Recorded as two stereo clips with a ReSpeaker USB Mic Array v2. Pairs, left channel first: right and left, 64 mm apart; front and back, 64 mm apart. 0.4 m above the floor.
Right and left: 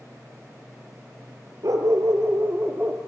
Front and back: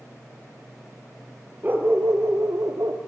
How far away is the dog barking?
About 2.5 m.